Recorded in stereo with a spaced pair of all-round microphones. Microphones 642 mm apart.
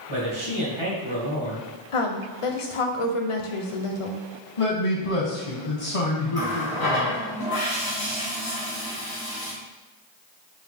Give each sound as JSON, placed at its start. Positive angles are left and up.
{"t": 0.1, "sound": "a man speaking", "side_deg": -50, "distance_m": 1.6}
{"t": 1.9, "sound": "a woman speaking", "side_deg": 55, "distance_m": 0.6}
{"t": 4.6, "sound": "a man speaking", "side_deg": 60, "distance_m": 0.9}
{"t": 6.3, "sound": "a running tap", "side_deg": 35, "distance_m": 1.6}